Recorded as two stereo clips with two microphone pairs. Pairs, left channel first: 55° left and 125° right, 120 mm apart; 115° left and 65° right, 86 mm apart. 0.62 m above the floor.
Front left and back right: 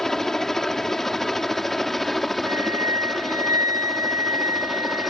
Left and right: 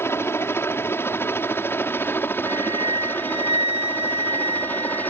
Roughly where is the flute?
Ahead right.